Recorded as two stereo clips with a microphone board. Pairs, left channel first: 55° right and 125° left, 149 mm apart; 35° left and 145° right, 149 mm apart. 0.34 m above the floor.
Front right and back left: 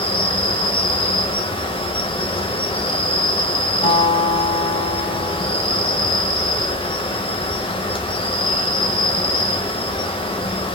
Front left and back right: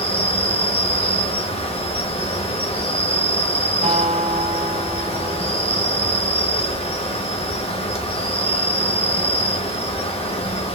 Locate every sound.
0.0 s an insect: 10° right, 0.8 m
3.8 s a guitar: 105° right, 1.1 m